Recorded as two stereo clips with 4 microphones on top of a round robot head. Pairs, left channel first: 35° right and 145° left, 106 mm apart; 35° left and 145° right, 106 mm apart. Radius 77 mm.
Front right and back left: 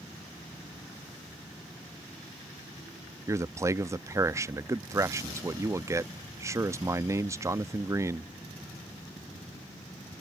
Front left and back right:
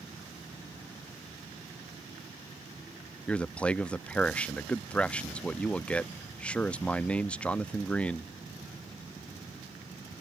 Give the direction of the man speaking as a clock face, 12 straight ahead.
8 o'clock.